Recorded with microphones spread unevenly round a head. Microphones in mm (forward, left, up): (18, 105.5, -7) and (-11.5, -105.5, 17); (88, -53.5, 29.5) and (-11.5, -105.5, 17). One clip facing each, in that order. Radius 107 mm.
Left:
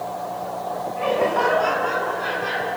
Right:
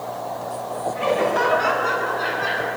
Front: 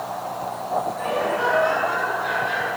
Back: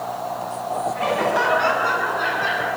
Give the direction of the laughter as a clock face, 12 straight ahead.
5 o'clock.